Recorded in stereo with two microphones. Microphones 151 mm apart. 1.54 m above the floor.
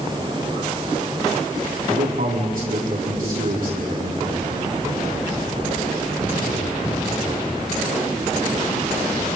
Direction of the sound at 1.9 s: 70° right (ahead or behind).